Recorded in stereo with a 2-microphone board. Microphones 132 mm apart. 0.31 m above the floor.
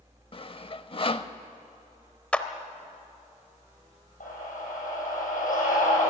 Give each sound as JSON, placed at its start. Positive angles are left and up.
{"t": 0.3, "sound": "sawing", "side_deg": 40, "distance_m": 0.6}
{"t": 2.3, "sound": "a clap", "side_deg": 10, "distance_m": 0.9}
{"t": 4.2, "sound": "a scream", "side_deg": 85, "distance_m": 9.5}